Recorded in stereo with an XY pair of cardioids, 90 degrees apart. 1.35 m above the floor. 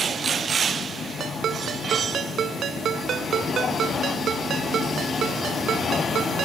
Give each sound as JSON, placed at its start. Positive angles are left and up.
{"t": 1.2, "sound": "a ringtone", "azimuth_deg": -65}